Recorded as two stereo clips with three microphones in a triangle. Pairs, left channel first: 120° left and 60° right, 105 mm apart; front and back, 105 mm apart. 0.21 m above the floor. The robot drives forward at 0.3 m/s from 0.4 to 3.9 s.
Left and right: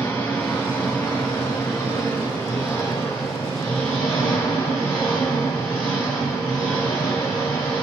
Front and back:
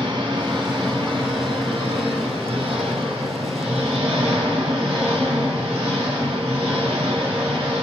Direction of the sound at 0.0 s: 175° right.